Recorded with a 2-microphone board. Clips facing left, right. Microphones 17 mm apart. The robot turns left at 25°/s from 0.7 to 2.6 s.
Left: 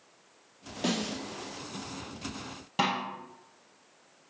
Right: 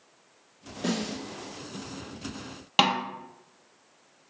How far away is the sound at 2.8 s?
About 1.4 m.